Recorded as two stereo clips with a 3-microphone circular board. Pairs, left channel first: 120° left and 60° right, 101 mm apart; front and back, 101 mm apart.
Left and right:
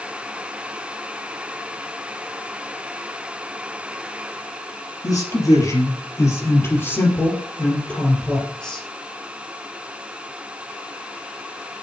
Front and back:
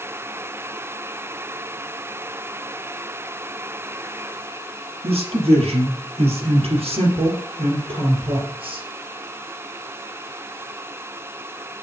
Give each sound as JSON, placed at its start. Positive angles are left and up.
{"t": 5.0, "sound": "a man speaking", "azimuth_deg": 170, "distance_m": 4.5}